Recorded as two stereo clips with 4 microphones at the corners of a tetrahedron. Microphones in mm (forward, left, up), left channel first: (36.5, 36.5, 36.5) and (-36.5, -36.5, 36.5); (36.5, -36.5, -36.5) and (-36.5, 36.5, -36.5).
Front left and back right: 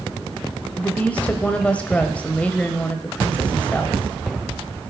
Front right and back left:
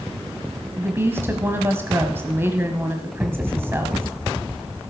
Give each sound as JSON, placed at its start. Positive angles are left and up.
{"t": 0.8, "sound": "a woman speaking", "azimuth_deg": 105, "distance_m": 1.0}